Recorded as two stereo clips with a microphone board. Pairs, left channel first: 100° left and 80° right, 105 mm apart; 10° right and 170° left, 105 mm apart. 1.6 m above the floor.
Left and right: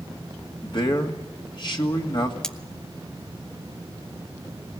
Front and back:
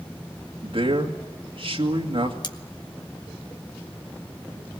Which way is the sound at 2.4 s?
20° left.